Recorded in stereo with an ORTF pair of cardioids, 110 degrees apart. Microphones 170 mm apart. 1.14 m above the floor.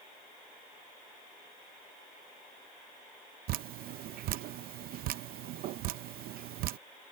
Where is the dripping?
70° right.